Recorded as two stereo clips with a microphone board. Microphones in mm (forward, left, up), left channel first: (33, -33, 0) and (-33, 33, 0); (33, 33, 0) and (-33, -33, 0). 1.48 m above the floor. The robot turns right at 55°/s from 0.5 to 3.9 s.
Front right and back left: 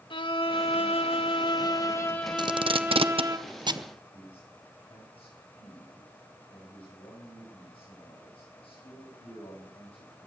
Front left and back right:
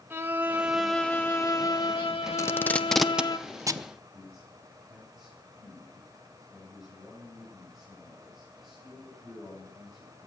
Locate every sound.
0.1 s a violin: 70° right, 1.6 m; by 3.4 s 90° left, 1.6 m
2.4 s tape being pulled: 100° left, 0.7 m; by 3.9 s straight behind, 0.7 m
4.1 s a man speaking: 45° right, 9.5 m